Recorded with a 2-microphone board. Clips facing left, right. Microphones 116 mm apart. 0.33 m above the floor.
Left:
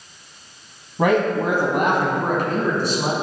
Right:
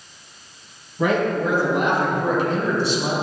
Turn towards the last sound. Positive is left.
turn(degrees=45)  # may be behind; listen again after turning